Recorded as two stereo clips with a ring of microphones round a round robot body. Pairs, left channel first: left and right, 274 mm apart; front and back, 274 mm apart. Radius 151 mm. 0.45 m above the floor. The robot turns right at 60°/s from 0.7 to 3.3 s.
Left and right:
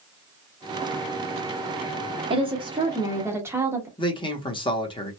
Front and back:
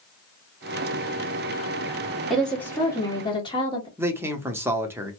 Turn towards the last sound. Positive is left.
turn(degrees=115)